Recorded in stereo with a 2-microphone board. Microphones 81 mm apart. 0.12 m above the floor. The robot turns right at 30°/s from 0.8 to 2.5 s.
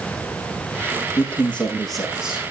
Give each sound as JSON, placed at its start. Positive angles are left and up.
{"t": 1.2, "sound": "a man speaking", "azimuth_deg": 155, "distance_m": 5.5}